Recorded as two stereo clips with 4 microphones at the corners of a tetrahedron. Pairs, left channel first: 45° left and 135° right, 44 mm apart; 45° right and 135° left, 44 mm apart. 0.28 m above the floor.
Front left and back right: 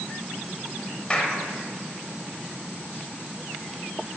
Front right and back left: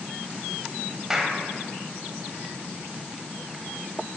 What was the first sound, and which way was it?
A clap, 70° left.